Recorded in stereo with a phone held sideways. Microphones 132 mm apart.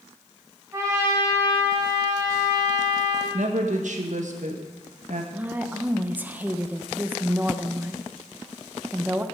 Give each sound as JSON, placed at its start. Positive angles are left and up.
{"t": 0.7, "sound": "a trumpet", "side_deg": -20, "distance_m": 3.5}
{"t": 3.3, "sound": "a woman speaking", "side_deg": -70, "distance_m": 1.5}
{"t": 5.3, "sound": "a woman speaking", "side_deg": -15, "distance_m": 0.8}